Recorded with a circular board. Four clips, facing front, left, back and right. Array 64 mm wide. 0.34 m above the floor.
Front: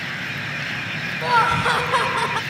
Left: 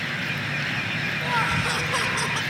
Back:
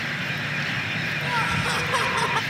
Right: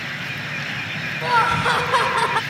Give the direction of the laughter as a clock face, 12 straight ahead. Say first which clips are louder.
Right 8 dB, front 9 dB; 1 o'clock.